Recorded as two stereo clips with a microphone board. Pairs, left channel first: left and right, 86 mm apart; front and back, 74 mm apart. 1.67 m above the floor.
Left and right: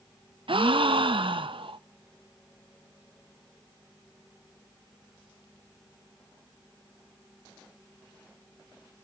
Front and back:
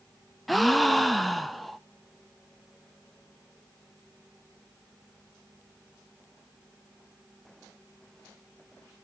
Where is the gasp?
90° right, 0.6 m.